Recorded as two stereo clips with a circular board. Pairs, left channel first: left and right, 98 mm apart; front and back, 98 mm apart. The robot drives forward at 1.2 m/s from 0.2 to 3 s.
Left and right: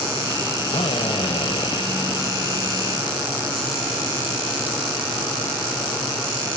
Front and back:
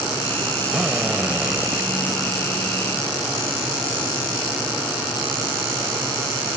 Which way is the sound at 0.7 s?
100° left.